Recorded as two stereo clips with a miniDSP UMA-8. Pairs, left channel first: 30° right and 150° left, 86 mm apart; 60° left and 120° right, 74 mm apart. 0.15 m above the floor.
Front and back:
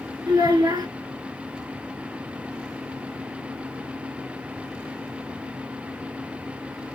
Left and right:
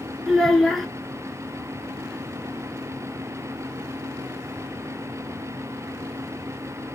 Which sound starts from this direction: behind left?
A child speaking, at 0.3 s.